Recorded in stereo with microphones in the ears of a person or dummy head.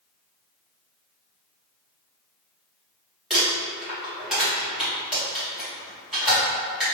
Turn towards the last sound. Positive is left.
turn(degrees=0)  # may be behind; listen again after turning